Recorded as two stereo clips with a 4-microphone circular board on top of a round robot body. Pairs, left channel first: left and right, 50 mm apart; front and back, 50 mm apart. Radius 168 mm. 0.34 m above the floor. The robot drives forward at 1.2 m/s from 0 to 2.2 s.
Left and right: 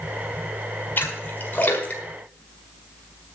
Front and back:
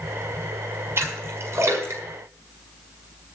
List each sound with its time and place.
1.0 s a splash: 140° left, 4.5 m; by 3.0 s 150° left, 6 m